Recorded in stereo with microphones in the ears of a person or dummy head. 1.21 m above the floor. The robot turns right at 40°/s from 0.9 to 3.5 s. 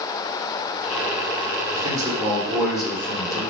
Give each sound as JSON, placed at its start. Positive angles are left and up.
{"t": 1.7, "sound": "a man speaking", "azimuth_deg": -35, "distance_m": 1.2}